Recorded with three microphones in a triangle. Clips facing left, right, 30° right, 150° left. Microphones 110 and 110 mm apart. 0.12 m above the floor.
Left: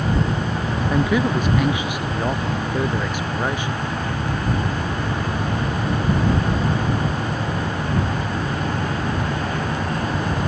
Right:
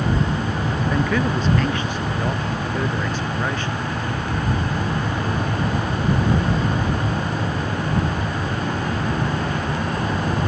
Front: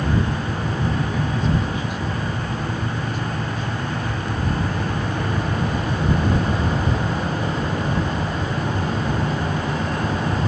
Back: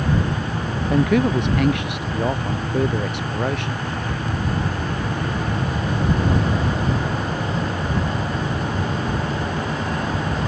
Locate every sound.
0.9 s a man speaking: 170° left; by 3.8 s 165° left